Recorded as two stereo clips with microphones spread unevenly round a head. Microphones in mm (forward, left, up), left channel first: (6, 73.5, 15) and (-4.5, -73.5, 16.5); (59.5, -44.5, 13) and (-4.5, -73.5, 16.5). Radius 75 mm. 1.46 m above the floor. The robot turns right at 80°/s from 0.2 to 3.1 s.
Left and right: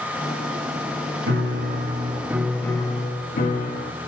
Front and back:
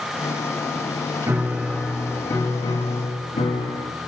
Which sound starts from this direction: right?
A piano, at 1.3 s.